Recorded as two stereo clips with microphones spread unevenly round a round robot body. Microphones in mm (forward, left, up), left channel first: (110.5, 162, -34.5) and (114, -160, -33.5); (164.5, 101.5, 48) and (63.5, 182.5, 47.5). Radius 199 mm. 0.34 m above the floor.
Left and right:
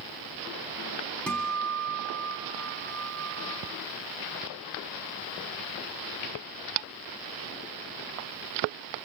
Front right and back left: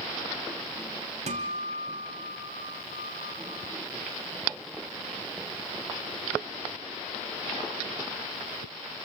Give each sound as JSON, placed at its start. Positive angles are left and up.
{"t": 1.3, "sound": "a guitar", "azimuth_deg": 175, "distance_m": 2.5}